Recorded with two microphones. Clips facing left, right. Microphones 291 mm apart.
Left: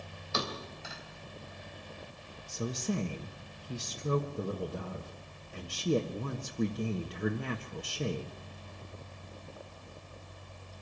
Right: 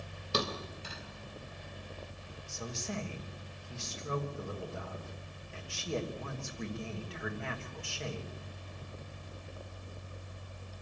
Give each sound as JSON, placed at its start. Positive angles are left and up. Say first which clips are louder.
{"t": 0.3, "sound": "a thud", "louder": "right 2 dB", "side_deg": -40, "distance_m": 3.5}
{"t": 2.5, "sound": "a woman speaking", "louder": "left 7 dB", "side_deg": 45, "distance_m": 1.3}